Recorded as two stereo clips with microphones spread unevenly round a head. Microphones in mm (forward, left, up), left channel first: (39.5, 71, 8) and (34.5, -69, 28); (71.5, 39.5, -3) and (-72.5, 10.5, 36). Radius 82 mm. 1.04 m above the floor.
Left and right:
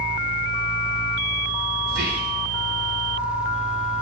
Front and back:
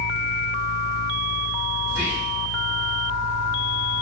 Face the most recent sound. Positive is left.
turn(degrees=-85)